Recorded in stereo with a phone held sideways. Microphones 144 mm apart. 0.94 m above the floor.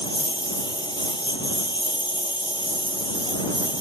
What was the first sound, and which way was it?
A lawn mower, 30° left (ahead or behind).